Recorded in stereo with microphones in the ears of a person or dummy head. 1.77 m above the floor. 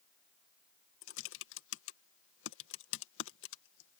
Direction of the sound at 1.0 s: 80° left.